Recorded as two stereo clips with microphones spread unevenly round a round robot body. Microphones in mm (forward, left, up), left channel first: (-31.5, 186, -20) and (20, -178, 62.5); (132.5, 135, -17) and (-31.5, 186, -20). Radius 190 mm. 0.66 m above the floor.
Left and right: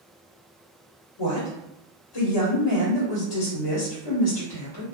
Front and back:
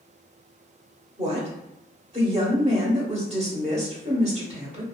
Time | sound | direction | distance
1.2 | a woman speaking | 110° left | 1.4 m